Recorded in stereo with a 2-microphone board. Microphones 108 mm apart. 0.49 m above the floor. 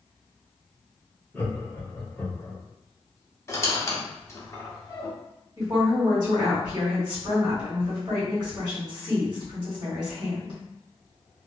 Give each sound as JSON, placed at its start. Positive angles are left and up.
{"t": 1.3, "sound": "laughter", "side_deg": 20, "distance_m": 1.5}
{"t": 3.5, "sound": "a squeak", "side_deg": 30, "distance_m": 0.6}
{"t": 5.6, "sound": "a woman speaking", "side_deg": -40, "distance_m": 1.6}